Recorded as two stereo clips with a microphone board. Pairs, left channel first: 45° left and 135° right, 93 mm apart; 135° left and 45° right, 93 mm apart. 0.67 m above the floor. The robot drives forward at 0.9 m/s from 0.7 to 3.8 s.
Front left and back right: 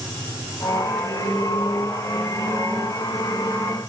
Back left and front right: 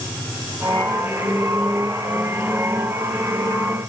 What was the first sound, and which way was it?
Only background noise.